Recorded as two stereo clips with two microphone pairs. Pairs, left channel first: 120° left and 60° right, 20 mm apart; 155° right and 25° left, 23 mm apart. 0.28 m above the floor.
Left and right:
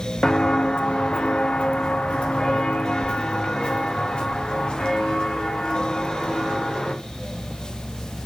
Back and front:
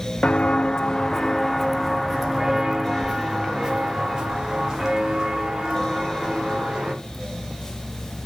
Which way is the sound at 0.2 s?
165° left.